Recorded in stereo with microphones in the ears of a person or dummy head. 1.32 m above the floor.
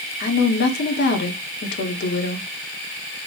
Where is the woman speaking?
55° left (ahead or behind), 0.9 m.